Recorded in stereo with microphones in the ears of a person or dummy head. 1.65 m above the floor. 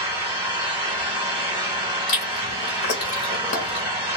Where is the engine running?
25° right (ahead or behind), 1.6 m.